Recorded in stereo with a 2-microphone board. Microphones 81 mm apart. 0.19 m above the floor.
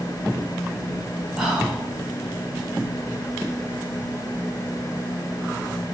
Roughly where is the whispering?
Centre.